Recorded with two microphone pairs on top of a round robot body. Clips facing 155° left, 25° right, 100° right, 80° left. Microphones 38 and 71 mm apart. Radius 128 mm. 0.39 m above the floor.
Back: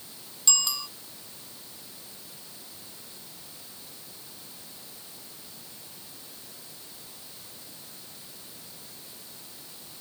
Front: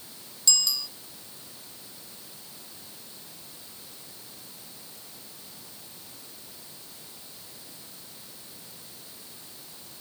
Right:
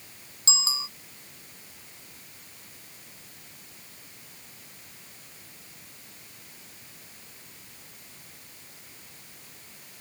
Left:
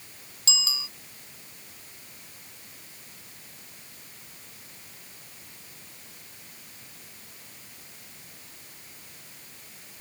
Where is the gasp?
I don't hear a gasp.